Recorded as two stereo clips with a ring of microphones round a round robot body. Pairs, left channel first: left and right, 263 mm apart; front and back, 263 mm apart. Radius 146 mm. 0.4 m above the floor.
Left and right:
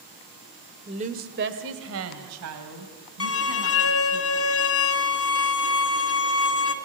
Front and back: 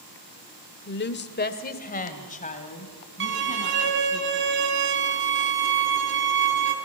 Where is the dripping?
I don't hear dripping.